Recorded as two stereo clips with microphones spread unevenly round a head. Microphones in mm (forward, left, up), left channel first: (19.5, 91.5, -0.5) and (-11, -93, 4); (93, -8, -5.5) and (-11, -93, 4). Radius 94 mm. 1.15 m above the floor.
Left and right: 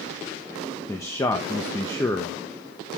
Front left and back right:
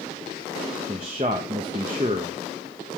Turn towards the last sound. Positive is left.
turn(degrees=155)